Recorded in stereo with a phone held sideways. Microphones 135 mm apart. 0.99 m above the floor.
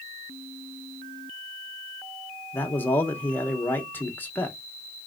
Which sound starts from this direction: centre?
A man speaking, at 2.5 s.